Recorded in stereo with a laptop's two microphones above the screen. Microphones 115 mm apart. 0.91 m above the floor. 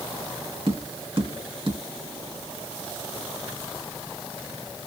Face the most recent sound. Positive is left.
turn(degrees=-55)  # may be behind; listen again after turning